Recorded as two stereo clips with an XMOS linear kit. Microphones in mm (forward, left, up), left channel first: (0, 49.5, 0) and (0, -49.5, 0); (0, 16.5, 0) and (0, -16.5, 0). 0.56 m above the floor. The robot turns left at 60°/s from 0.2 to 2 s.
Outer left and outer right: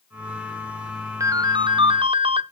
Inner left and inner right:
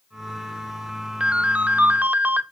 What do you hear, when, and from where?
1.2 s a ringtone: 40° right, 0.6 m; by 2.4 s 85° right, 0.6 m